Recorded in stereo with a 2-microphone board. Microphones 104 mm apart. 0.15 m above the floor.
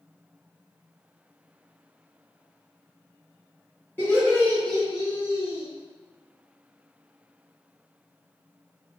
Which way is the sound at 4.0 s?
20° left (ahead or behind).